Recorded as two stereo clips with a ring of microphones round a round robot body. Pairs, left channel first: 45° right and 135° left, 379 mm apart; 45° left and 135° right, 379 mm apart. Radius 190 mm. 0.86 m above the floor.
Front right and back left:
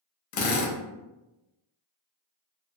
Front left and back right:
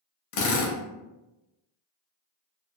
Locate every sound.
0.3 s a drill: straight ahead, 0.6 m